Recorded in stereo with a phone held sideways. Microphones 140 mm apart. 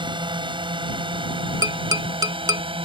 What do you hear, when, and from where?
0.0 s a drone: 35° right (ahead or behind)
1.6 s tapping: 25° right (ahead or behind)